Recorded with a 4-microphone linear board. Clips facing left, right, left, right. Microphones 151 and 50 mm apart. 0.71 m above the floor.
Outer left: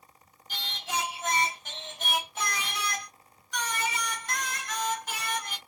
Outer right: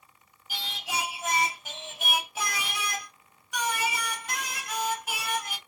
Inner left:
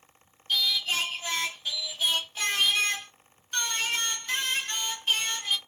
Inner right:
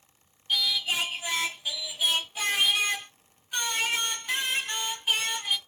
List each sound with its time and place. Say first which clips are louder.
0.5 s singing: even, even; 10° right (ahead or behind), 0.5 m